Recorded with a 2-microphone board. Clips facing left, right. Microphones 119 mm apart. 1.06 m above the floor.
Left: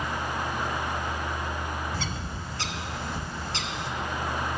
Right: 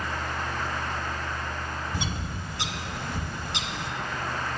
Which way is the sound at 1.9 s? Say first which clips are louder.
Right 1 dB; 20° right (ahead or behind).